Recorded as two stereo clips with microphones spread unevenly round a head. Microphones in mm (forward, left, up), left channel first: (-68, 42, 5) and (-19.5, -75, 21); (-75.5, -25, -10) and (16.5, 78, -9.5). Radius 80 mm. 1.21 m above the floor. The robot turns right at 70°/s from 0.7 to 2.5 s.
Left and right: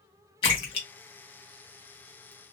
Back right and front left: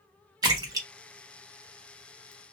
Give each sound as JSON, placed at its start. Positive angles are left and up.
{"t": 0.4, "sound": "a splash", "azimuth_deg": 80, "distance_m": 1.0}